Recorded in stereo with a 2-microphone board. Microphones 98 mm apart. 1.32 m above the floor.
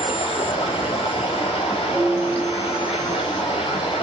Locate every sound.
0.0 s running water: 80° left, 4 m
1.9 s a piano: 45° left (ahead or behind), 7.5 m